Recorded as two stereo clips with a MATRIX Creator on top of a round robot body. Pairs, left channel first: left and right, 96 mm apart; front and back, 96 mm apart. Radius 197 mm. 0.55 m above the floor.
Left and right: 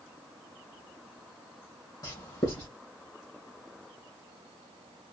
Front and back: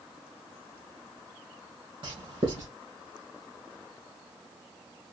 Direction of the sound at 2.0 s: 140° left.